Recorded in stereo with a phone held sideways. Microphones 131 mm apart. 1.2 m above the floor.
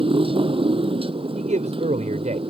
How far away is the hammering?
No hammering in this recording.